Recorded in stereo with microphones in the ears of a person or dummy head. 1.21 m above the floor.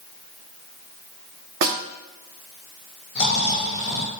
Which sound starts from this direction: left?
Snoring, at 3.1 s.